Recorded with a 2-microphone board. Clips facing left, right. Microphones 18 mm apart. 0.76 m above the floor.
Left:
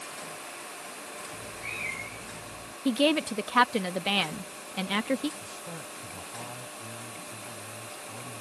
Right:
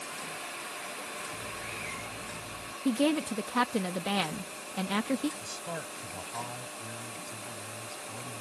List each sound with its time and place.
1.3 s a cat meowing: 30° left (ahead or behind)
2.9 s a woman speaking: 35° left (ahead or behind)
5.4 s a man speaking: 75° right (ahead or behind)